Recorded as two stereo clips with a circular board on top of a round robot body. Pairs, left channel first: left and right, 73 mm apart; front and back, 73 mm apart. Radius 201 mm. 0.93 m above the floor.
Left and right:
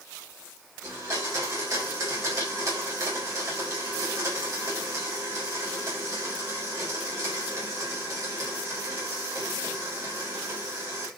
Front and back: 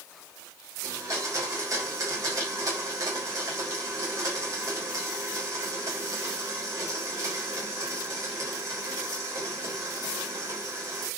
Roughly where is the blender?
Behind right.